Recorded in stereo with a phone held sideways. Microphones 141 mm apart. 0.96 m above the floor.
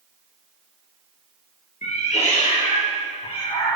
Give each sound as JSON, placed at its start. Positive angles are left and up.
{"t": 1.8, "sound": "a cat meowing", "side_deg": 55, "distance_m": 3.0}